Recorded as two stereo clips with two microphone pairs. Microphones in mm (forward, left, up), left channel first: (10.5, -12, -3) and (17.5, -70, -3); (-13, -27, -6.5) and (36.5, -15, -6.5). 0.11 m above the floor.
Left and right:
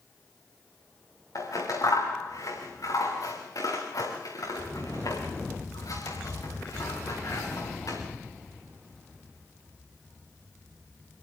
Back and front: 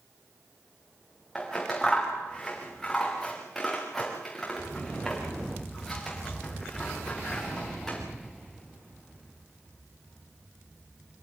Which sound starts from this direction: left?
Scissors, at 1.4 s.